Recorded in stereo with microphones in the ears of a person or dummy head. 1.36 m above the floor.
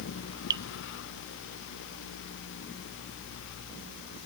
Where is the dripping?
20° right (ahead or behind), 0.8 m.